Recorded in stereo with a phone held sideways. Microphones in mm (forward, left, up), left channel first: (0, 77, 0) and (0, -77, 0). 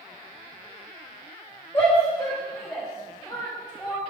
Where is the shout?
25° left (ahead or behind), 1.7 m; by 4.0 s 10° right (ahead or behind), 2.5 m.